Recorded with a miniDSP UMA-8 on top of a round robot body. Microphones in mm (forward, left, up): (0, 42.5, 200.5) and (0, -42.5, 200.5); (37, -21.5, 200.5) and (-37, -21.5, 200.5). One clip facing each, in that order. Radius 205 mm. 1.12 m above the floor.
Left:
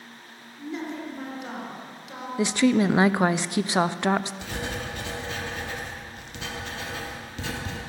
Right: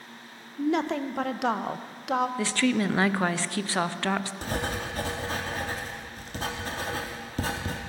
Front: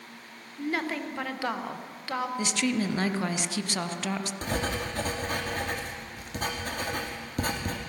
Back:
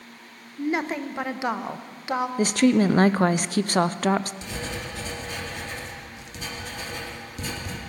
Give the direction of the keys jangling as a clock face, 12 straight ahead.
No keys jangling in this recording.